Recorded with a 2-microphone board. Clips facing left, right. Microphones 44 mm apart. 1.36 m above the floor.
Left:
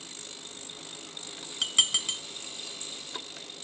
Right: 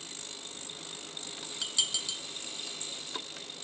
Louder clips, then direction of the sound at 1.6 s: Left 7 dB; 45° left (ahead or behind).